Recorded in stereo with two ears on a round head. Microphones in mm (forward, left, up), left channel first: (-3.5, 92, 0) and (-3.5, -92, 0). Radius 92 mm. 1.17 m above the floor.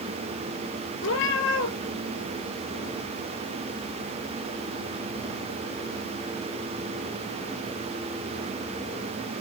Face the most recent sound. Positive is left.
turn(degrees=65)  # may be behind; listen again after turning